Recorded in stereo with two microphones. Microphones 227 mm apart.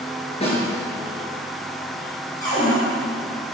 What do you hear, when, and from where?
0.4 s a snare drum: 25° left (ahead or behind), 4 m
2.4 s a cupboard door: 40° left (ahead or behind), 5 m